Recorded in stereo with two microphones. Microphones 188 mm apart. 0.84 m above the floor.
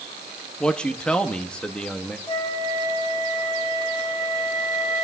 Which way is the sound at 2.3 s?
25° left (ahead or behind).